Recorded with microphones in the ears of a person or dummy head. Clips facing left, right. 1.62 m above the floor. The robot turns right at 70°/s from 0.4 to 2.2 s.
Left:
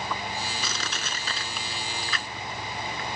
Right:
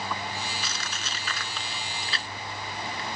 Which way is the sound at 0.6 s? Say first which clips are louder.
Left 3 dB; 80° left.